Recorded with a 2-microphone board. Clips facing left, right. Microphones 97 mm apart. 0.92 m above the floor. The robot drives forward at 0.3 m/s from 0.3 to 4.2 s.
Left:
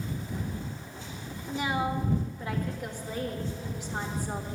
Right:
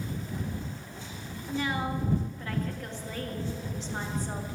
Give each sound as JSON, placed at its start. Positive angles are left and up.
{"t": 1.5, "sound": "a woman speaking", "side_deg": 15, "distance_m": 1.4}